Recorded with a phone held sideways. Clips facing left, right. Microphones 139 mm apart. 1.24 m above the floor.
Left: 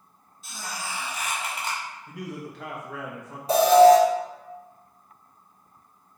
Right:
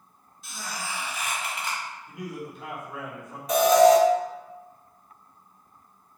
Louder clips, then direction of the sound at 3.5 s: Left 3 dB; 30° left (ahead or behind).